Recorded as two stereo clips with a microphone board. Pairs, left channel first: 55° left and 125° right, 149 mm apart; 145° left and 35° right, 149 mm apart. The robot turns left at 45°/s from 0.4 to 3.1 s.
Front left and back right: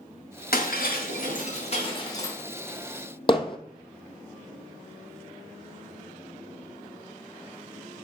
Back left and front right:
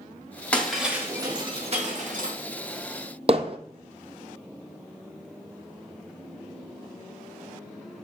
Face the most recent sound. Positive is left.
turn(degrees=5)